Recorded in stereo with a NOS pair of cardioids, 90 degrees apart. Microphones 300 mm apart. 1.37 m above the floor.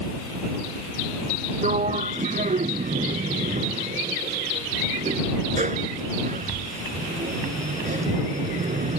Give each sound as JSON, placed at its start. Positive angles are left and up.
{"t": 1.6, "sound": "a sliding door", "azimuth_deg": -25}